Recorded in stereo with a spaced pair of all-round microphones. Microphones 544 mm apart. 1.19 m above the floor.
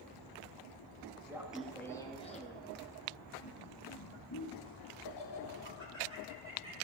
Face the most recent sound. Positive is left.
turn(degrees=60)  # may be behind; listen again after turning